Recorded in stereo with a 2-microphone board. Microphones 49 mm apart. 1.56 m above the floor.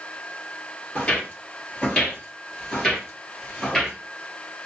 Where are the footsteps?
25° left (ahead or behind), 1.9 m; by 4.0 s 5° left (ahead or behind), 1.8 m.